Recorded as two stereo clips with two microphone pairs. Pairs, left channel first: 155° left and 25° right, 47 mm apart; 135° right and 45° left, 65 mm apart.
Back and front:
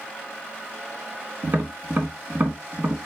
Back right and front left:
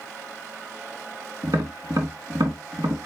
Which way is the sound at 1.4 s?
30° left.